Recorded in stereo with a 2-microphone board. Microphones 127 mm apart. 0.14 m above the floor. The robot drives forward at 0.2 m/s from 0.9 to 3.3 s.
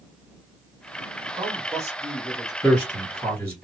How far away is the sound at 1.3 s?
About 1.3 m.